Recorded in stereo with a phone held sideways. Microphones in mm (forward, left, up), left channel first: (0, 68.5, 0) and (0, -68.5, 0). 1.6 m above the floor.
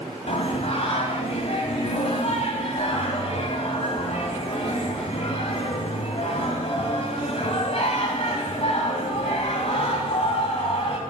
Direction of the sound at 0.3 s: 50° left (ahead or behind).